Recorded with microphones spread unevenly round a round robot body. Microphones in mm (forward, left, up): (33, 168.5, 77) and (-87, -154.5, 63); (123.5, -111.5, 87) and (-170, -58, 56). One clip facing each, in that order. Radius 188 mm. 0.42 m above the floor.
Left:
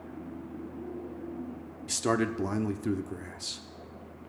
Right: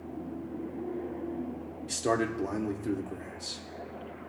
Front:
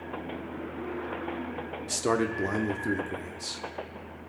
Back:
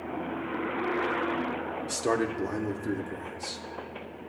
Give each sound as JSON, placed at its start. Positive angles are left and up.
{"t": 1.9, "sound": "a man speaking", "azimuth_deg": 70, "distance_m": 0.8}